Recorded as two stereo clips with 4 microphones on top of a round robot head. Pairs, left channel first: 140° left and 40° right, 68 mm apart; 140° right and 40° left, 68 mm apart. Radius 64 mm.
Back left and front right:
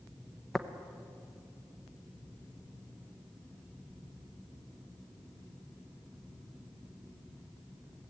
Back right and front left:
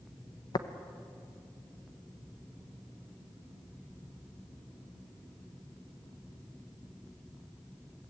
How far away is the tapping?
About 0.9 m.